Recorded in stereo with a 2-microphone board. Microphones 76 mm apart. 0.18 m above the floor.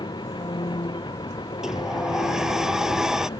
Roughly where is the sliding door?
Centre.